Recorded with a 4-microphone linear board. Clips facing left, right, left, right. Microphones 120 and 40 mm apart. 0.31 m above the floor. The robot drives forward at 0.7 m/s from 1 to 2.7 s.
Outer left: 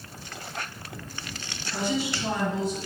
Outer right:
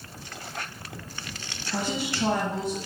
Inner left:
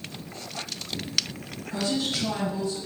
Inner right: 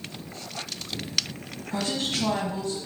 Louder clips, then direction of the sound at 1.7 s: Outer left 1 dB, inner left 1 dB; 60° right (ahead or behind).